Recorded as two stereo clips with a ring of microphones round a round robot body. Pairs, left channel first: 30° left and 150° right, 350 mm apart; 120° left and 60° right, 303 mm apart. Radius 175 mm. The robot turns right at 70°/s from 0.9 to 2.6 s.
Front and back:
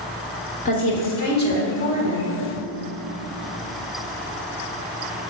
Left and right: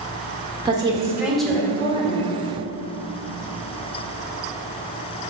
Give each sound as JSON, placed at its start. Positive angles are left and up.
{"t": 0.7, "sound": "a woman speaking", "azimuth_deg": -5, "distance_m": 1.3}